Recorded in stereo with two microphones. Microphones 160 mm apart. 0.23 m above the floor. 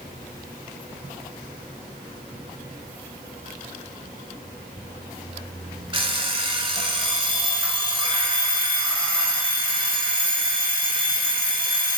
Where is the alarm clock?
35° right (ahead or behind), 1.2 m.